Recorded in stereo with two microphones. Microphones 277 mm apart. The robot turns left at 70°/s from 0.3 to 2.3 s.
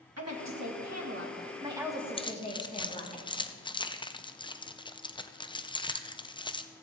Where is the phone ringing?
I don't hear a phone ringing.